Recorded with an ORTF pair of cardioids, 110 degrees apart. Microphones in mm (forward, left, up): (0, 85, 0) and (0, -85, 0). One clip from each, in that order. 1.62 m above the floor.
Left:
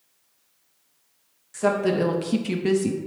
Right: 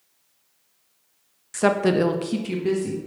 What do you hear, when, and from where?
1.5 s a woman speaking: 40° right, 0.6 m; by 3.0 s 40° left, 0.6 m